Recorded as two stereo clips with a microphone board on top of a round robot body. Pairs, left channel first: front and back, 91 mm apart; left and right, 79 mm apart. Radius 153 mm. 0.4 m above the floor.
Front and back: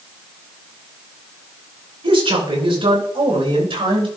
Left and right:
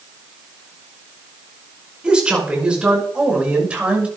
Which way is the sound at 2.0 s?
170° right.